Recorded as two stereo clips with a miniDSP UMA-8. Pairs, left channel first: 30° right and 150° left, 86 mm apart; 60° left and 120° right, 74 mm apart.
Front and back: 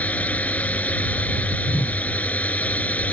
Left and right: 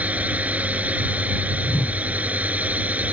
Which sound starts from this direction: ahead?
A whoosh, at 1.6 s.